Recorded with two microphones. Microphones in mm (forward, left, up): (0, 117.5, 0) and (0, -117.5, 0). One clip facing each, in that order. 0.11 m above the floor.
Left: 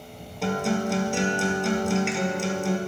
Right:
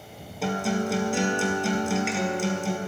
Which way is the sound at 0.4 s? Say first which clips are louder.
Left 1 dB; centre (ahead or behind).